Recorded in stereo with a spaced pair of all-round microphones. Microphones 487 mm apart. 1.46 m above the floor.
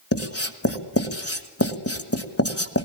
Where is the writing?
30° left (ahead or behind), 1.4 m.